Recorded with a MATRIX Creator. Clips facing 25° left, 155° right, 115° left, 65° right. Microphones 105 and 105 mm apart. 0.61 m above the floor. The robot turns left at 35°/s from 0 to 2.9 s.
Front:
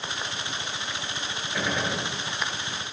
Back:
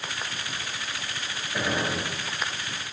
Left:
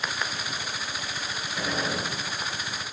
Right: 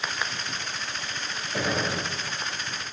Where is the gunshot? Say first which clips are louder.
Back 1 dB, right 2 dB; 75° right, 2.5 m; by 2.1 s 95° right, 2.5 m.